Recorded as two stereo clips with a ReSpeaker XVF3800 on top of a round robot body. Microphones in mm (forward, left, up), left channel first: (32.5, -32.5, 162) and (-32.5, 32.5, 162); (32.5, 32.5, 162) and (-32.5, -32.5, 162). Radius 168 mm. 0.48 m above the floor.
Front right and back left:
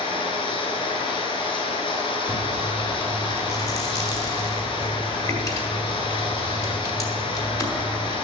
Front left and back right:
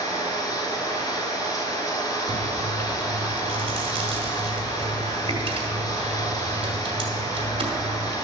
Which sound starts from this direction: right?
Chewing, at 2.3 s.